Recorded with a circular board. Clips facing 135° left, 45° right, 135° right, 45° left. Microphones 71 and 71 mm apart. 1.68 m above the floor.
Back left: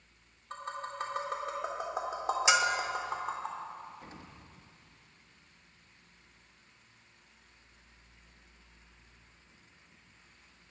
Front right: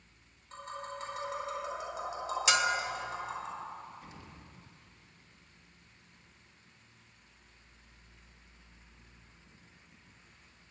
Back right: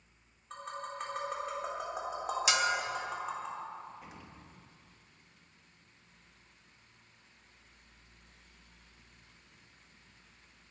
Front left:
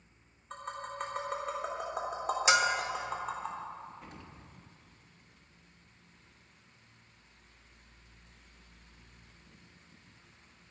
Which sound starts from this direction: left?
A bell, at 2.5 s.